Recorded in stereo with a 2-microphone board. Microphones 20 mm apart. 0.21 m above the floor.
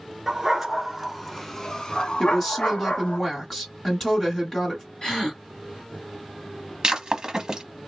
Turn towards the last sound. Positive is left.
turn(degrees=-35)  # may be behind; listen again after turning